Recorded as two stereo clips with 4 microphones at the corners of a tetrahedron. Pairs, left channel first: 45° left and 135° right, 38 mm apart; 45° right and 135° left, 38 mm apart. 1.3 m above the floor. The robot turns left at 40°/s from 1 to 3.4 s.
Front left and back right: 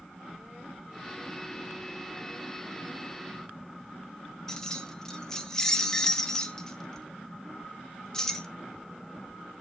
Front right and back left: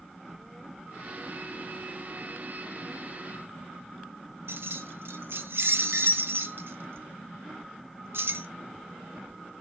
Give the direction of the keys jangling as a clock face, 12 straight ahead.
8 o'clock.